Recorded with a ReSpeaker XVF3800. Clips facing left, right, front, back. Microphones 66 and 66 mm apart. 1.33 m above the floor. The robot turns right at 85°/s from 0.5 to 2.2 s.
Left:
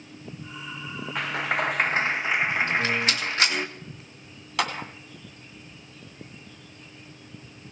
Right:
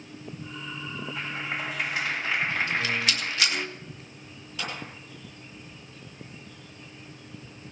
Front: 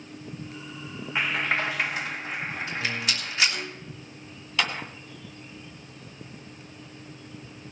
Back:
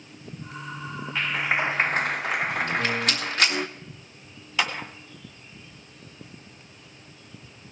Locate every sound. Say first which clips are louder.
1.1 s a clap: left 8 dB, back 1 dB; 70° left, 0.8 m; by 3.7 s 160° left, 0.8 m
2.7 s a rattle: left 3 dB, back 5 dB; 140° left, 2.5 m
4.6 s a clap: left 8 dB, back 1 dB; 105° left, 2.0 m